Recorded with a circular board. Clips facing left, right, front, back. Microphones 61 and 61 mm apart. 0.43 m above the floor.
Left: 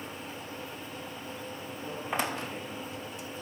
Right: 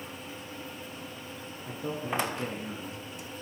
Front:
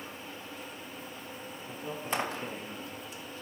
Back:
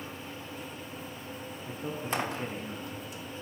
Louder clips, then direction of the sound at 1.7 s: Right 4 dB, back 1 dB; 120° right.